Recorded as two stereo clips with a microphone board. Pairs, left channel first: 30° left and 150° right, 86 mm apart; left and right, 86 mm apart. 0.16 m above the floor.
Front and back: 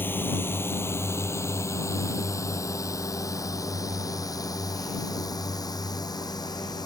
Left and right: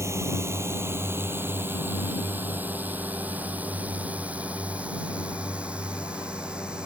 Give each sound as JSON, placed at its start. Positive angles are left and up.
{"t": 0.0, "sound": "a drone", "azimuth_deg": -35}